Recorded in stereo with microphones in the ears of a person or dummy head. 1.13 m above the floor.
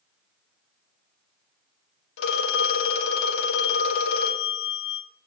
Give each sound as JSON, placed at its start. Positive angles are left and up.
{"t": 2.2, "sound": "a phone ringing", "side_deg": 65, "distance_m": 1.3}